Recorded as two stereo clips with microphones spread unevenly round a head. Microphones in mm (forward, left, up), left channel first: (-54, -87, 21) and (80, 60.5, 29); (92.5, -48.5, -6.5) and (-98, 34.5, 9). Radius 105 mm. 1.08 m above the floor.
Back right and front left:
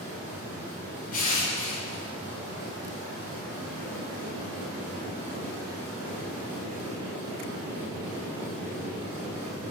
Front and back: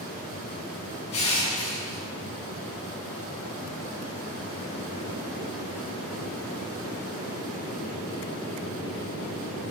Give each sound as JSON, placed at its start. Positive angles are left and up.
{"t": 1.1, "sound": "crushing", "azimuth_deg": -85, "distance_m": 6.0}